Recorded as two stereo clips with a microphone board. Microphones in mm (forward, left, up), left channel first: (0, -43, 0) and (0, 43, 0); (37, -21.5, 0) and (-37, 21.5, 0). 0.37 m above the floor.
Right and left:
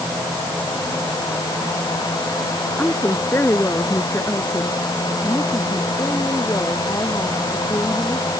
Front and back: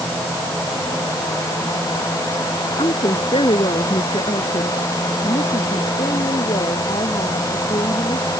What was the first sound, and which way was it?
A woman speaking, 25° right.